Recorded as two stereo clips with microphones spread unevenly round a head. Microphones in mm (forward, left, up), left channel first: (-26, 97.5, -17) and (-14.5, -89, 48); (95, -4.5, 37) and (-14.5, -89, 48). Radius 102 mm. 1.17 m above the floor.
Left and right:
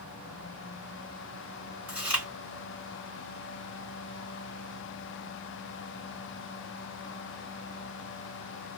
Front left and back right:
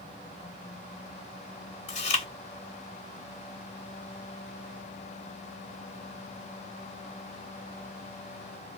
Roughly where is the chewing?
Ahead.